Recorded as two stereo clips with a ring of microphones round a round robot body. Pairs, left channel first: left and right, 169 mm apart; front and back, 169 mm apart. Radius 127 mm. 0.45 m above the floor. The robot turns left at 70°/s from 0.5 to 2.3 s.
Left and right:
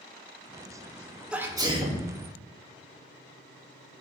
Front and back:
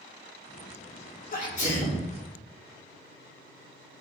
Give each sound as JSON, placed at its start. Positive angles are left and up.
{"t": 1.3, "sound": "a sneeze", "azimuth_deg": -10, "distance_m": 1.4}